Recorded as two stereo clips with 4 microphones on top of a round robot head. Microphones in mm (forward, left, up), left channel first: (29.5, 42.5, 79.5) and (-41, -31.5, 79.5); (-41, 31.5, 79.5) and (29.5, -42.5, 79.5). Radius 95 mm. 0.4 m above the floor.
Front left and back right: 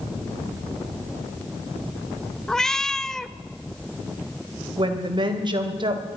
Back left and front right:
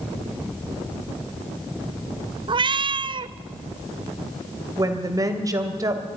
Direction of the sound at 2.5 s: 40° right.